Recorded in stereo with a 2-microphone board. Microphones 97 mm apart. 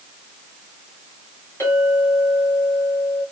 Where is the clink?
25° left (ahead or behind), 2.5 m.